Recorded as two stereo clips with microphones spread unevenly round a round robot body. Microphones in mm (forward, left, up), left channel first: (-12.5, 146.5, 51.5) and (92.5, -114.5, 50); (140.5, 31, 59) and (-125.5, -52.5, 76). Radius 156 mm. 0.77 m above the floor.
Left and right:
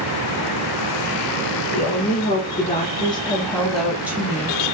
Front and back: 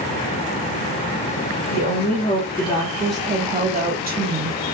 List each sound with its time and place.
1.7 s a woman speaking: 60° left, 1.4 m; by 4.8 s 140° right, 1.2 m